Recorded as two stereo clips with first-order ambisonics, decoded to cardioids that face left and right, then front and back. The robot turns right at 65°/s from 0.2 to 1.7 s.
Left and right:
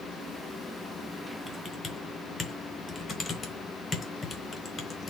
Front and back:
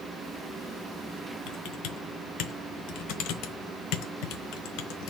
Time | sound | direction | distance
1.5 | typing on a keyboard | 5° left | 1.1 m